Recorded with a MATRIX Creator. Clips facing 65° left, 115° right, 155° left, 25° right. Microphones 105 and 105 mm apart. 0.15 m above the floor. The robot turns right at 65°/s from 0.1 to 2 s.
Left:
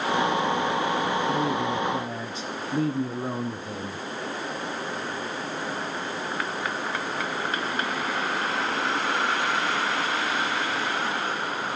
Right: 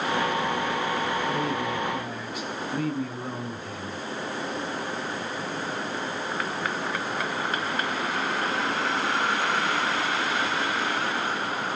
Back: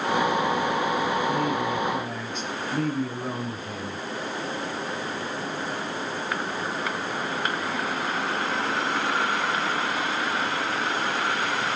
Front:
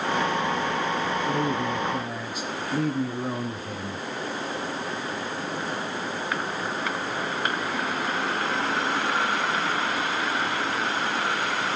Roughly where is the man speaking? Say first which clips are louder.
Left 2 dB, back 1 dB; ahead.